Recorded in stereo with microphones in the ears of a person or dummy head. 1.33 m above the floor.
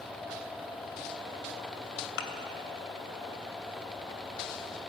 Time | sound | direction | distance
2.2 | a thud | 70° left (ahead or behind) | 2 m